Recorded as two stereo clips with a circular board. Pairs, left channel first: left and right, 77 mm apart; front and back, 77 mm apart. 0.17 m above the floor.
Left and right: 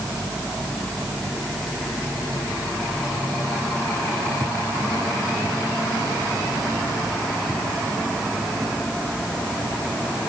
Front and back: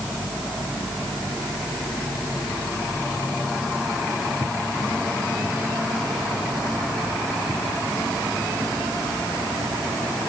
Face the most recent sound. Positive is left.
No sound to turn to.